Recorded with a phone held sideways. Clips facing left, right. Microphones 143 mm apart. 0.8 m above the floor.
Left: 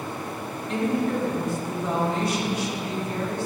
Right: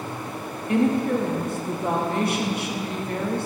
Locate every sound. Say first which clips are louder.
0.7 s a woman speaking: right 4 dB; 60° right (ahead or behind), 1.1 m